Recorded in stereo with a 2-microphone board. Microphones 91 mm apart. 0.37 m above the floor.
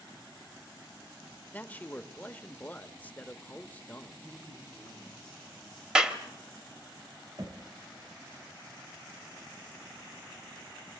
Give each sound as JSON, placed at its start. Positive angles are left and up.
{"t": 1.5, "sound": "a man speaking", "side_deg": 20, "distance_m": 0.8}
{"t": 4.2, "sound": "a man speaking", "side_deg": -35, "distance_m": 8.5}
{"t": 6.0, "sound": "a clap", "side_deg": -10, "distance_m": 1.1}
{"t": 7.4, "sound": "knocking", "side_deg": -45, "distance_m": 1.2}